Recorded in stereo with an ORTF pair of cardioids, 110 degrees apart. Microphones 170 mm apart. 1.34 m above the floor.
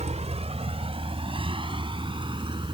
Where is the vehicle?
40° right; by 2.8 s 30° right.